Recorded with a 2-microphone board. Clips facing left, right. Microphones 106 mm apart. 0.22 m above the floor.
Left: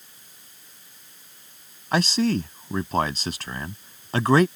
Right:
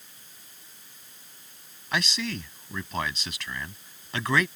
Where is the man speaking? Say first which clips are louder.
Left 9 dB; 40° left (ahead or behind).